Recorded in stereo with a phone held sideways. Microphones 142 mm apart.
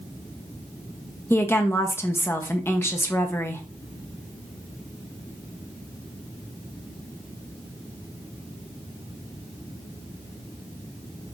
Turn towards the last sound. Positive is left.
turn(degrees=15)  # may be behind; listen again after turning